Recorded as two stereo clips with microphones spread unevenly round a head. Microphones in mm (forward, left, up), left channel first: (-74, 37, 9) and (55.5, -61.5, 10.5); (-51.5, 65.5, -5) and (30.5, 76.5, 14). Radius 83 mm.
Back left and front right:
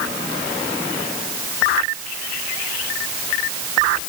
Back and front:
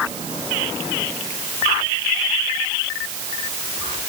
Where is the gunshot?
No gunshot in this recording.